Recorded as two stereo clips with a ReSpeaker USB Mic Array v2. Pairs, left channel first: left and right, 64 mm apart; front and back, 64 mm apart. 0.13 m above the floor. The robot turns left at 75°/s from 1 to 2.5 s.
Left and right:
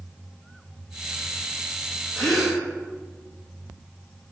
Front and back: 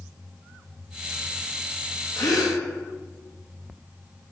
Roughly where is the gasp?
Ahead.